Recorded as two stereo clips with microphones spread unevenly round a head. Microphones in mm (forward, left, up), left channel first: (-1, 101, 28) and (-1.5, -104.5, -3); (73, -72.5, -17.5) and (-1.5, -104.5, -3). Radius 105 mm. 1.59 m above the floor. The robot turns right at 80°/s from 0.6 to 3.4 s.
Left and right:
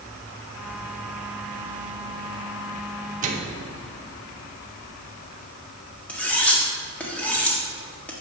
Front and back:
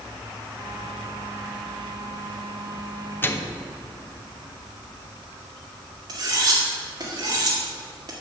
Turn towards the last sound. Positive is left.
turn(degrees=170)